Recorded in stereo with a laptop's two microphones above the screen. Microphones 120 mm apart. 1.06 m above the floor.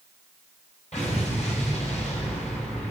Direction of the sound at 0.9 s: 65° left (ahead or behind).